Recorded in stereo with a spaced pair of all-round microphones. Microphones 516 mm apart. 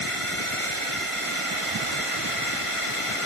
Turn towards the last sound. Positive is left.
turn(degrees=80)